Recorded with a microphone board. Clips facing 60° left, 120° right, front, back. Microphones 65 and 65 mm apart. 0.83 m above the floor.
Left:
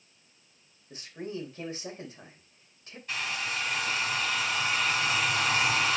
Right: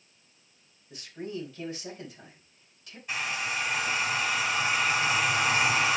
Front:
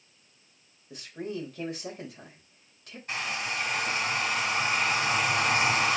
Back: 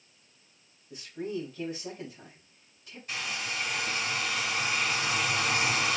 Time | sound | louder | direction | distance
0.9 | a man speaking | right 1 dB, back 1 dB | 10° left | 4 m
3.1 | a hair dryer | right 2 dB, front 3 dB | 45° right | 2 m